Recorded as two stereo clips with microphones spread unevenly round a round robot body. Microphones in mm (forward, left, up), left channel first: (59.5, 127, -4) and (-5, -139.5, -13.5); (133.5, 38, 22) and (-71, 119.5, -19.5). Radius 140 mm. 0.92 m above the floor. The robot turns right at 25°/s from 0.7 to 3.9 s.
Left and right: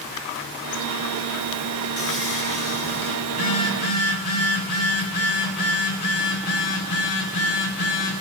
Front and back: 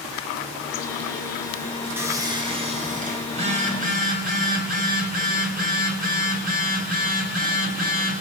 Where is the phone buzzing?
95° left, 4 m; by 8.2 s 110° left, 4 m.